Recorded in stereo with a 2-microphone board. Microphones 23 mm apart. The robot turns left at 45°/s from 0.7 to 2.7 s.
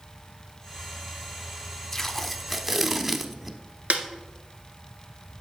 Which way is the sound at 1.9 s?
20° left.